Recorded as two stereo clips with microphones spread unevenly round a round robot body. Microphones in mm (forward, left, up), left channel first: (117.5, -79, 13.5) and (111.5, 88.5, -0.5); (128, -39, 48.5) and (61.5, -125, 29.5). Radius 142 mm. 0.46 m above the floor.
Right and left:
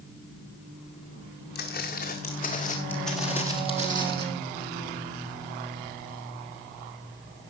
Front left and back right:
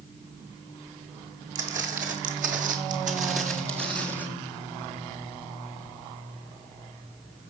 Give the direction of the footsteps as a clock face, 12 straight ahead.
5 o'clock.